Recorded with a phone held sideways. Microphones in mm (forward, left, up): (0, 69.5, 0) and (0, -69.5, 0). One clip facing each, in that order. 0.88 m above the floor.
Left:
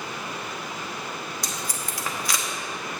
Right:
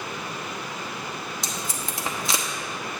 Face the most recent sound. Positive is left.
turn(degrees=-20)  # may be behind; listen again after turning